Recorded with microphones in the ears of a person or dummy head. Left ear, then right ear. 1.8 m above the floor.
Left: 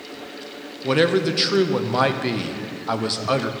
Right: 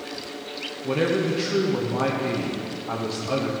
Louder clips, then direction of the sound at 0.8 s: Left 5 dB; 45° left (ahead or behind).